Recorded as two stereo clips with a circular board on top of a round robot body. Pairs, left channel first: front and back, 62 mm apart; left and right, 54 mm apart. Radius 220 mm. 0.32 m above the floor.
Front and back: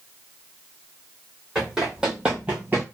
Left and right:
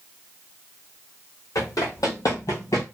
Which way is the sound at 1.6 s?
100° left.